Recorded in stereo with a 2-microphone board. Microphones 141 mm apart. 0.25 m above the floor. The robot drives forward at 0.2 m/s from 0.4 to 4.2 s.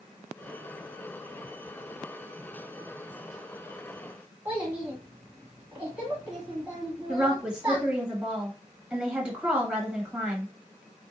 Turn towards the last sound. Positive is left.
turn(degrees=-5)  # may be behind; listen again after turning